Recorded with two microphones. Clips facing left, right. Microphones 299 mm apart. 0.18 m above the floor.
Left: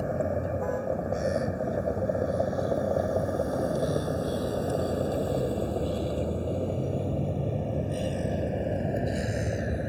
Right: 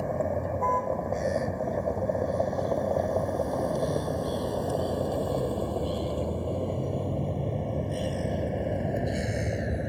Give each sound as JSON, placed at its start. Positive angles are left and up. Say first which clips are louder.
{"t": 0.0, "sound": "a vehicle", "louder": "even", "side_deg": 5}